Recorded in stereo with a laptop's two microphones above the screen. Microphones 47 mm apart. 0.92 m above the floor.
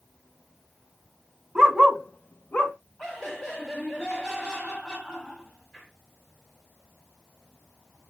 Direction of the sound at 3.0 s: 10° left (ahead or behind).